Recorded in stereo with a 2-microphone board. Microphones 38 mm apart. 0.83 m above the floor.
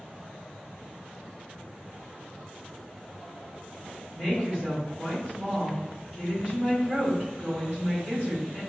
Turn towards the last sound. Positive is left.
turn(degrees=-60)  # may be behind; listen again after turning